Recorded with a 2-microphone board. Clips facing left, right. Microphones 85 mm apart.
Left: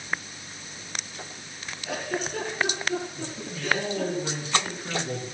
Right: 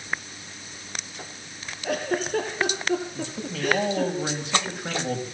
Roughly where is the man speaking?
Right.